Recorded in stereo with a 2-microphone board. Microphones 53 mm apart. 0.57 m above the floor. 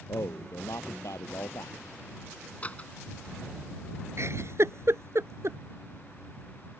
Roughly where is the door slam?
Left.